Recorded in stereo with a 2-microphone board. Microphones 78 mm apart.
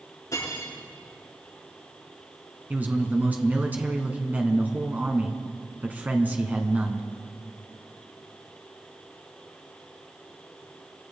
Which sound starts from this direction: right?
A man speaking, at 2.7 s.